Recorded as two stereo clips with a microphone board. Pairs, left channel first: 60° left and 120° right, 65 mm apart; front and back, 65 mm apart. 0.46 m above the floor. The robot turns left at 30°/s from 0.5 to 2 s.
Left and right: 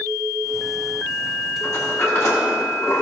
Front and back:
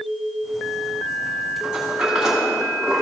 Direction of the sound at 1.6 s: 105° left.